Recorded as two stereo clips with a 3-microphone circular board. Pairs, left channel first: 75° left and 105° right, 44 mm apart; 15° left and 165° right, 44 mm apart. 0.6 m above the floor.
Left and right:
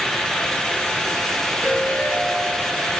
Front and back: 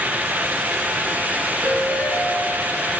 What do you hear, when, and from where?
1.6 s a ringtone: 40° left, 4.5 m